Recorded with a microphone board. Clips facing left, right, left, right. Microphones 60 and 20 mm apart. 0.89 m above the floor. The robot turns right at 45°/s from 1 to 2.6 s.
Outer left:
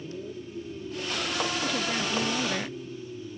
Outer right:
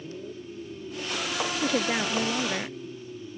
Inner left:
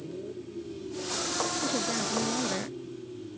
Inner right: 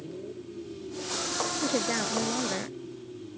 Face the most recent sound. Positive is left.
turn(degrees=-5)